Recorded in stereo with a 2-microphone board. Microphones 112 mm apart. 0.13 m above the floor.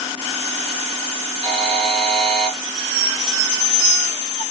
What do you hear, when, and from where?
1.4 s a buzzer: 55° right (ahead or behind), 4 m